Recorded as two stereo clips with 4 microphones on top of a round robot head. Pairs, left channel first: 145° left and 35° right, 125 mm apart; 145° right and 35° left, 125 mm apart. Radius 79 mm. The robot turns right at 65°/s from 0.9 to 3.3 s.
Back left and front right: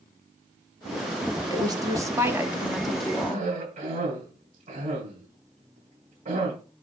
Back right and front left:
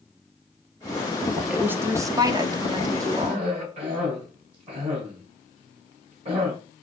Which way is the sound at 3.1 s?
10° right.